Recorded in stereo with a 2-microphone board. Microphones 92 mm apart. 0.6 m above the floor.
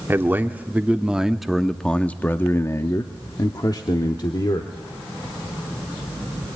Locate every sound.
0.1 s a man speaking: 25° right (ahead or behind), 1.5 m; by 4.7 s 50° left (ahead or behind), 1.7 m